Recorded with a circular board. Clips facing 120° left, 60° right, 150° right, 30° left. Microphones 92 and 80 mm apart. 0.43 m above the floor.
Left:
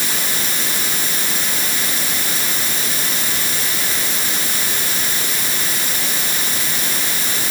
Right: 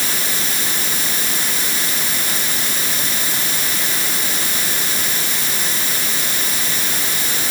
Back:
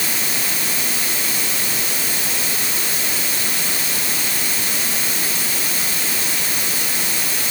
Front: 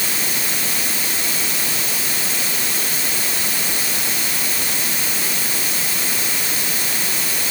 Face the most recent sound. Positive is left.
No sound to turn to.